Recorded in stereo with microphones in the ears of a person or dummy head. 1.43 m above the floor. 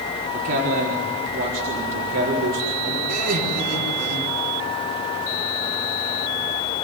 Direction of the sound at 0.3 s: 55° right (ahead or behind).